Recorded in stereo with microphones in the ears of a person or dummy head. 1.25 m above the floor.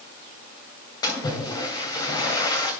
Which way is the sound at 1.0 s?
20° left (ahead or behind).